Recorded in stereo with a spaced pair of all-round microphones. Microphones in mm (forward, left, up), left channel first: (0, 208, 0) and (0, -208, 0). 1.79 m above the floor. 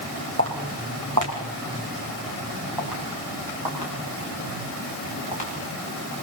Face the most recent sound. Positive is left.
turn(degrees=-75)  # may be behind; listen again after turning